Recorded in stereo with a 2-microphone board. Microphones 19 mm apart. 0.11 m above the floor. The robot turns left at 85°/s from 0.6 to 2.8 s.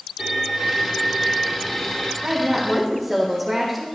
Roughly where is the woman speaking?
Behind right.